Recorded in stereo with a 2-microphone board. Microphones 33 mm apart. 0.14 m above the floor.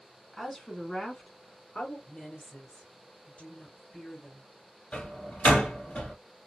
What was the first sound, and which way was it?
A woman speaking, 5° left (ahead or behind).